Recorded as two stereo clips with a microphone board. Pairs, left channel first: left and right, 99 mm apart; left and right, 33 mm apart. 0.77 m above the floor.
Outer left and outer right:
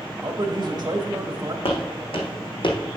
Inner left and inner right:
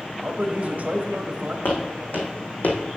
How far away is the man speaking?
About 1.1 m.